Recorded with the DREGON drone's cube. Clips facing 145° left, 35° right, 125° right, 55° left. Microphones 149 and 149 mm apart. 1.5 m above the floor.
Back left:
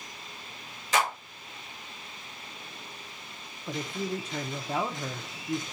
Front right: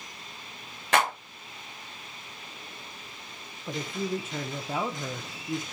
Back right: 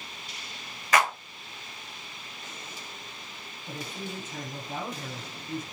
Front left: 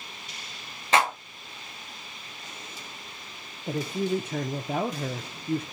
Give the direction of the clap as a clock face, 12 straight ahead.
12 o'clock.